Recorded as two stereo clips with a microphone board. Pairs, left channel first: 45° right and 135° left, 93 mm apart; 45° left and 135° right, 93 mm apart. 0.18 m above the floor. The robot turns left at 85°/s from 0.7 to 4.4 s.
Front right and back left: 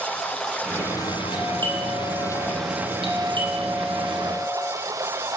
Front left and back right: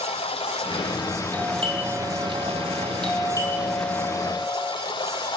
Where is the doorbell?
85° right, 7.5 m; by 4.7 s 10° left, 7.5 m.